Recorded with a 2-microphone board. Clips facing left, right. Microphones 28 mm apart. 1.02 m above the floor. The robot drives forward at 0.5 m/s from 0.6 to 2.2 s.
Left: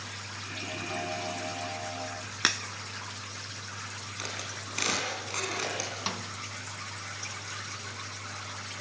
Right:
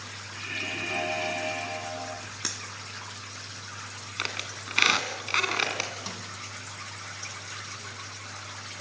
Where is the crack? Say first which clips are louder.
Left 9 dB; 65° left (ahead or behind), 0.8 m.